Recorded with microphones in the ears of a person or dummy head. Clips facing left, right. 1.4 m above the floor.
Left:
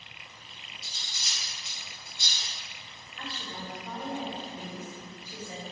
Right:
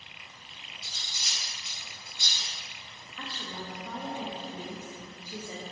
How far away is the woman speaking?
About 0.7 m.